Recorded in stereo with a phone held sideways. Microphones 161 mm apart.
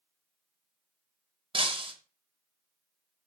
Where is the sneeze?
I don't hear a sneeze.